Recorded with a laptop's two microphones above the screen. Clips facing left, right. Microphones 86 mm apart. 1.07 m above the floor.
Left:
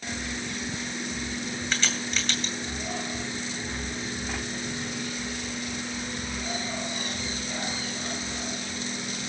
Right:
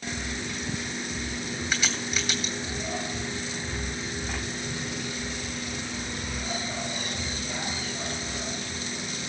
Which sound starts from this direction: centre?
A crack, at 1.7 s.